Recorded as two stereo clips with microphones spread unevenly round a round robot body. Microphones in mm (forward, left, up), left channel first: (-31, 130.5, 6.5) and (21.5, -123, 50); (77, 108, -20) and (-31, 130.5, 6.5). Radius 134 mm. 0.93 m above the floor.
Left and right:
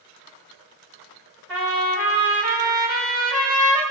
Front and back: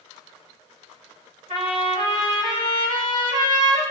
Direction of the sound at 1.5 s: 170° right.